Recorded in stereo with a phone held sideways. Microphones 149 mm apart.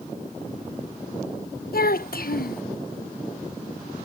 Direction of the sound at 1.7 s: 75° left (ahead or behind).